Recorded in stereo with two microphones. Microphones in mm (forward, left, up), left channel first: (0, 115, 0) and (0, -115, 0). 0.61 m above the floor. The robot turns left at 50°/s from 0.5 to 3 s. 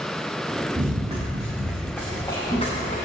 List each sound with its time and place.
0.8 s running footsteps: 35° right (ahead or behind), 3.5 m; by 3.1 s 40° left (ahead or behind), 3.5 m